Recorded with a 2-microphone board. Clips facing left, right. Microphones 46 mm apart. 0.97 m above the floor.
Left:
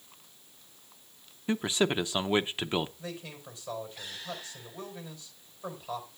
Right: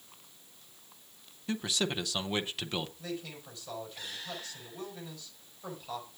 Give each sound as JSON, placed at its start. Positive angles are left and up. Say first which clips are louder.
{"t": 1.5, "sound": "a man speaking", "louder": "left 5 dB", "side_deg": 25, "distance_m": 0.7}
{"t": 3.0, "sound": "a man speaking", "louder": "right 1 dB", "side_deg": 10, "distance_m": 4.5}